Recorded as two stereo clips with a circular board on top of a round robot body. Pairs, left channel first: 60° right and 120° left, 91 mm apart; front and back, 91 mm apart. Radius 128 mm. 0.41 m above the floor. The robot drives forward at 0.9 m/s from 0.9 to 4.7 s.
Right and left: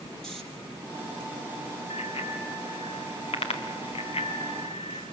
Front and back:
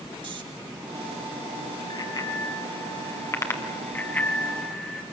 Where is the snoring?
145° right, 3.5 m.